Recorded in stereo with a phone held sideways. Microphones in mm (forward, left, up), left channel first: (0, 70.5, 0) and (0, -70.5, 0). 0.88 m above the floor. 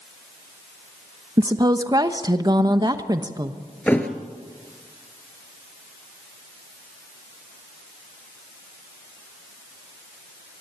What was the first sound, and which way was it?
A woman speaking, 30° right (ahead or behind).